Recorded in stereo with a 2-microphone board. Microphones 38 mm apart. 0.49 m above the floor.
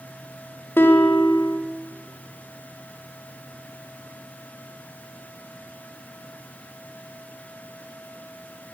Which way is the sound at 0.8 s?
70° left (ahead or behind).